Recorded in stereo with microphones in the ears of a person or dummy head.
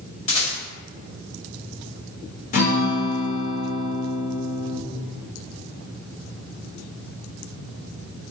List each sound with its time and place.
0.3 s a rattle: 35° left (ahead or behind), 1.8 m
2.5 s a guitar: 50° left (ahead or behind), 1.1 m